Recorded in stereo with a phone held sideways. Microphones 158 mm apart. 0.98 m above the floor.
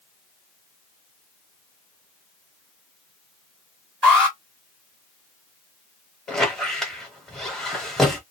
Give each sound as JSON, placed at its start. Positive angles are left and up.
{"t": 4.0, "sound": "an alarm", "side_deg": 5, "distance_m": 1.5}
{"t": 6.3, "sound": "a squeak", "side_deg": 5, "distance_m": 0.9}